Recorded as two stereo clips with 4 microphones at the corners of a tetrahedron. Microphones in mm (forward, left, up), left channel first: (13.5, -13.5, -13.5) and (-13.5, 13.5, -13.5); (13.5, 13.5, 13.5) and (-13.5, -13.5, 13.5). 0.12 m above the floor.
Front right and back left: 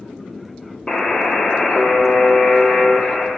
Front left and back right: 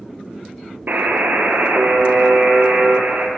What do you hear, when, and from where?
0.9 s a buzzer: 115° right, 0.7 m